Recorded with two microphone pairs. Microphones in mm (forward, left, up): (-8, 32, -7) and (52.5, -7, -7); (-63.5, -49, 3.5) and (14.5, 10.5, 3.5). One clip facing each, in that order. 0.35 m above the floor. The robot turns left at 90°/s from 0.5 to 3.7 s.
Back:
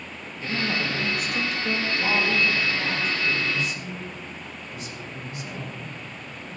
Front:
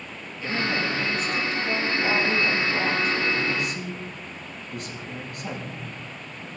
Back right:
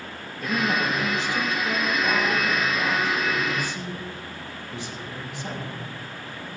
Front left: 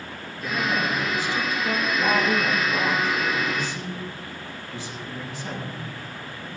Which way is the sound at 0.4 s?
140° right.